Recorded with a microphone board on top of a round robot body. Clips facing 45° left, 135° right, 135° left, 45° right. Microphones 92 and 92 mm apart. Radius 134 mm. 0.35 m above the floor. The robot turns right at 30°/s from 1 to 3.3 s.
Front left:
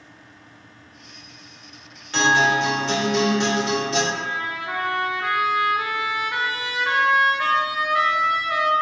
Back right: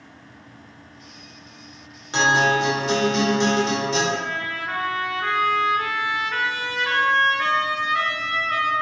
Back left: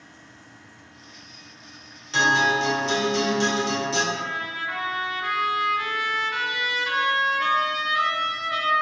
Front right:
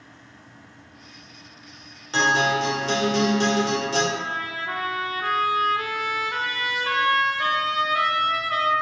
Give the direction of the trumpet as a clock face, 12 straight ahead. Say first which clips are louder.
Back right 1 dB, front right 1 dB; 1 o'clock.